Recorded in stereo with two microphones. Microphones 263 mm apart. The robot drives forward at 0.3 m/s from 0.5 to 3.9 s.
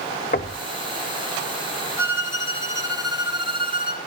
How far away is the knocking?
About 0.9 m.